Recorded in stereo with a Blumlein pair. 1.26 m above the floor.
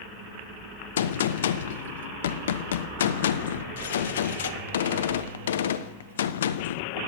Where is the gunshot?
60° left, 0.6 m.